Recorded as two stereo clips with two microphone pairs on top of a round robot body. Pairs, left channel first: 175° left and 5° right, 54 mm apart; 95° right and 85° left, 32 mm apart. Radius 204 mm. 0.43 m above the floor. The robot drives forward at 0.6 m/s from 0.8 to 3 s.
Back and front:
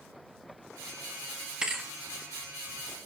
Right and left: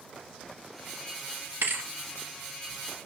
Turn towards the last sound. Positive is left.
turn(degrees=120)